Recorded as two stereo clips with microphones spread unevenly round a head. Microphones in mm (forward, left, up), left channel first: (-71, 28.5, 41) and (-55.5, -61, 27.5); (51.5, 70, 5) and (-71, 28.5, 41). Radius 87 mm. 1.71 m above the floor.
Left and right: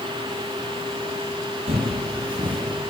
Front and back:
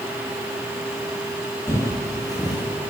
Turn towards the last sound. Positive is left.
turn(degrees=-50)